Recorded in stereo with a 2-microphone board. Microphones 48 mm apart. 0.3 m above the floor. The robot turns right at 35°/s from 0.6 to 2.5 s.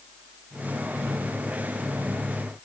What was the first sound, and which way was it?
Only background noise.